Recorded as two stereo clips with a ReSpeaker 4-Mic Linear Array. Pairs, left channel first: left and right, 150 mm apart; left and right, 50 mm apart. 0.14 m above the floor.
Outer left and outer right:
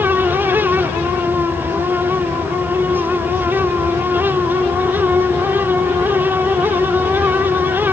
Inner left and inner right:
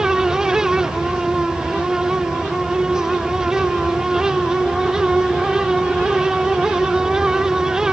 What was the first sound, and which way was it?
Only background noise.